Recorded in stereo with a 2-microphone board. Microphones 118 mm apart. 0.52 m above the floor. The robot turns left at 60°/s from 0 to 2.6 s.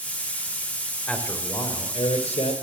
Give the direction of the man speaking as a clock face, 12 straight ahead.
6 o'clock.